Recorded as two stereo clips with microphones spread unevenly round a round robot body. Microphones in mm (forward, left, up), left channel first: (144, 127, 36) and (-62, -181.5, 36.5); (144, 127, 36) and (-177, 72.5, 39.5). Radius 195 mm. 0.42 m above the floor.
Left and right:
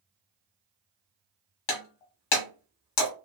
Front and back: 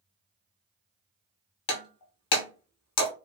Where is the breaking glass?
40° left, 1.4 m.